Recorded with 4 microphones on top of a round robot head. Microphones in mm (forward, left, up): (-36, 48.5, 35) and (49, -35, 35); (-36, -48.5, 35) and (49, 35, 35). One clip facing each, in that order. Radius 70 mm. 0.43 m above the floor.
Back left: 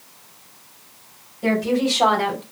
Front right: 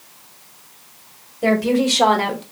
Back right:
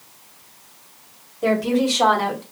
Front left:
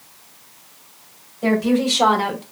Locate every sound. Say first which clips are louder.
1.4 s a woman speaking: front right 3 dB, front left 1 dB; 50° right, 1.6 m; by 2.4 s 20° right, 0.9 m